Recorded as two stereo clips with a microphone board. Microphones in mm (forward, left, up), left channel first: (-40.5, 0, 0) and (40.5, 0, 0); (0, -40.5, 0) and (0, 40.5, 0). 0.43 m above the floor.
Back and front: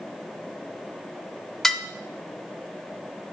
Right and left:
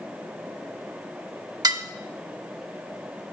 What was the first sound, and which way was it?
Dishes clattering, 95° left.